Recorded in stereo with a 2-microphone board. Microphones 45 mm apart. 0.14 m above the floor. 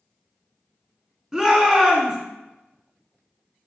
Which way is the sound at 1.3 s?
10° right (ahead or behind).